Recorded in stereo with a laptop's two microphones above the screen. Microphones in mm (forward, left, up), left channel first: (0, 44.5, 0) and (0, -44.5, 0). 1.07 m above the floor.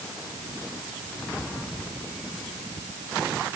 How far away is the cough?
I don't hear a cough.